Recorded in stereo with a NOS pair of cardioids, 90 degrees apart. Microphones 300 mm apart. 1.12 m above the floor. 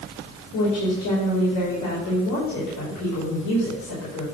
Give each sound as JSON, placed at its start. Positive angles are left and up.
{"t": 0.5, "sound": "a woman speaking", "azimuth_deg": 70, "distance_m": 2.5}